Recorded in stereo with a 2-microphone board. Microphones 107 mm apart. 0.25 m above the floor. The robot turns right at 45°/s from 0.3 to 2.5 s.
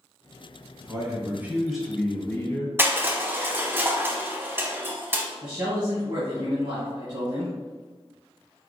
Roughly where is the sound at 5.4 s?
Right.